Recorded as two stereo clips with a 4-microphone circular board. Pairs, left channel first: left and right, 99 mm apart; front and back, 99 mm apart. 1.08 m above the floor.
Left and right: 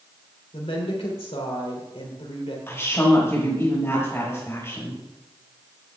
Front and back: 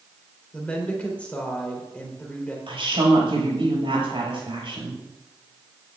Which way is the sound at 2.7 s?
155° left.